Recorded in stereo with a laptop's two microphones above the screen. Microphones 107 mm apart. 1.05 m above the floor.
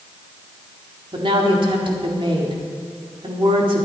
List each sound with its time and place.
1.1 s a woman speaking: 55° right (ahead or behind), 1.9 m